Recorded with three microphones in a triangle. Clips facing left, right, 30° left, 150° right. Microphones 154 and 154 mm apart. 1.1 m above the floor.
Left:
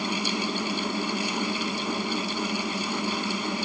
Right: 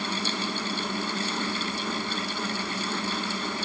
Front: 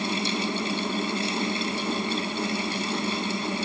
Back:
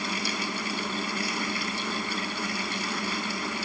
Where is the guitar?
No guitar in this recording.